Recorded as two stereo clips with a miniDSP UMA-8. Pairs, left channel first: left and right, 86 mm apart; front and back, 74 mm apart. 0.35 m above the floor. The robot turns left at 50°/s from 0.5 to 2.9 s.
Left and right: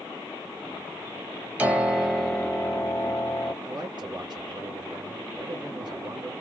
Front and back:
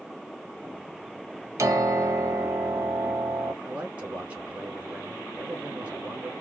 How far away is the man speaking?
About 2.5 m.